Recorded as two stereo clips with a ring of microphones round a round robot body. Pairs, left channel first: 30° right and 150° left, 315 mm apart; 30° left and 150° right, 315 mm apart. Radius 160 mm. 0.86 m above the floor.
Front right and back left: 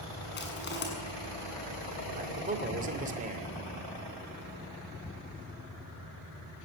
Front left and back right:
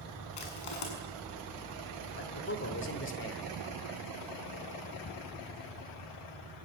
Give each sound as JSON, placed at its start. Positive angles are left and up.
{"t": 0.4, "sound": "crushing", "azimuth_deg": 30, "distance_m": 7.0}
{"t": 2.1, "sound": "a man speaking", "azimuth_deg": 85, "distance_m": 3.0}